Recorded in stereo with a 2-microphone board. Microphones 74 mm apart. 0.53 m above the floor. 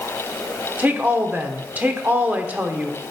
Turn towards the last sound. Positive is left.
turn(degrees=-25)  # may be behind; listen again after turning